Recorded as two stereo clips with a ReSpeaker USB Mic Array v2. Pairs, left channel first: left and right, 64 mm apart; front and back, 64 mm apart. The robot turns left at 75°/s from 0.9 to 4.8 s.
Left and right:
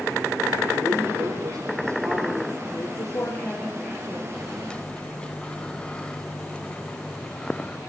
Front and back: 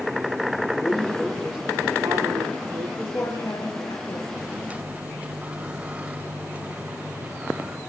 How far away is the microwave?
About 1.3 m.